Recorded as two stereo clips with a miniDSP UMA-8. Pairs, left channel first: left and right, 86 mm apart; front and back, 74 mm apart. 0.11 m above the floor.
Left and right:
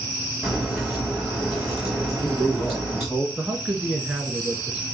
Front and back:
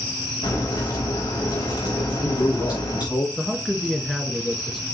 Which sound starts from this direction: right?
A man speaking, at 3.4 s.